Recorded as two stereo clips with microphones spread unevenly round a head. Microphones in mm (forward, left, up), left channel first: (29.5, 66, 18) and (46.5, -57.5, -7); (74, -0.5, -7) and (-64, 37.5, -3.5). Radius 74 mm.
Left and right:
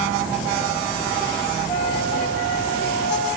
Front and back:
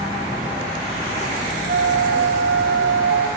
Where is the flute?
155° left, 0.7 m.